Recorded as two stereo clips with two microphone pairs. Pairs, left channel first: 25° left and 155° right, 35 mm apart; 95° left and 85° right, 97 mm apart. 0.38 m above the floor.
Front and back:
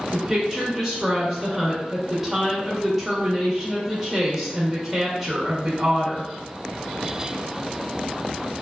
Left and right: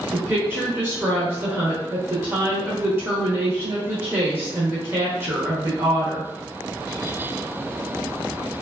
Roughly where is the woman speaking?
Right.